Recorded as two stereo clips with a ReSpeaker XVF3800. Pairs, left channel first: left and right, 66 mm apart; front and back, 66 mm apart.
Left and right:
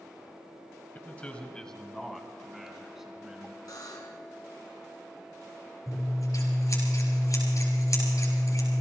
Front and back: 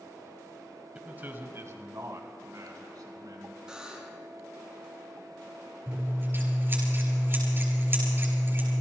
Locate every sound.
0.9 s a man speaking: 125° left, 1.6 m; by 3.6 s 170° right, 3.5 m
3.7 s a buzzer: 105° left, 2.5 m
5.9 s scissors: 125° left, 6 m